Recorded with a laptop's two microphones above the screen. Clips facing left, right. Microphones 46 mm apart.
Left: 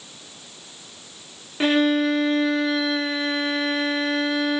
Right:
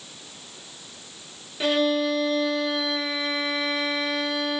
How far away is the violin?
About 1.1 m.